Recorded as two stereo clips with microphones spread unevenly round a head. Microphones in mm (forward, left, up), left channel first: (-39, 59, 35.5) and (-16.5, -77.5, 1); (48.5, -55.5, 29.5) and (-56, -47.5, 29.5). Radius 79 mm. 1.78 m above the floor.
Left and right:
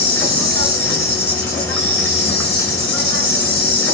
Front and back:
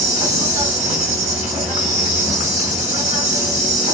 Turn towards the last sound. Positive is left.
turn(degrees=165)